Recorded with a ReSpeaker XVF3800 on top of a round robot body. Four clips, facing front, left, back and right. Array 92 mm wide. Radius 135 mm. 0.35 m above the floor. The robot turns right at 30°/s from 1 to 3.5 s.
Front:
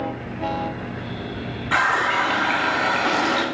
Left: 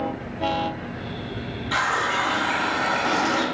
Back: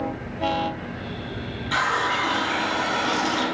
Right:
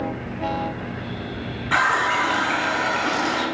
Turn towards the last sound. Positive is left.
turn(degrees=10)